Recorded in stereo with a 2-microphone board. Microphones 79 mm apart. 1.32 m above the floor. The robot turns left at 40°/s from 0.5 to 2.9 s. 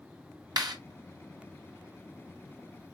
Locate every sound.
0.6 s a clap: 60° right (ahead or behind), 2 m; by 0.8 s 70° right (ahead or behind), 2 m